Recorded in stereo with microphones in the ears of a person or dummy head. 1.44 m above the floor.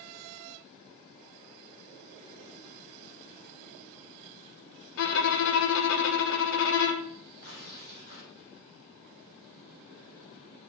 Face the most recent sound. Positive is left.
turn(degrees=55)  # may be behind; listen again after turning